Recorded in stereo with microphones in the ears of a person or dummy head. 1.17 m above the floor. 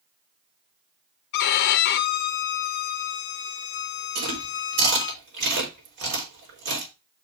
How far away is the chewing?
About 4.5 m.